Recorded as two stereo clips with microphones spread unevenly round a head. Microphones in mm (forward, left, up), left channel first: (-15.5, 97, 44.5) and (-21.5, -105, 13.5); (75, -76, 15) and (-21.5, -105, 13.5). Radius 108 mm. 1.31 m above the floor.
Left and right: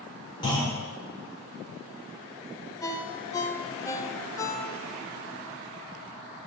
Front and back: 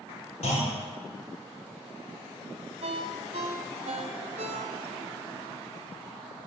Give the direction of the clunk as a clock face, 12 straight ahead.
11 o'clock.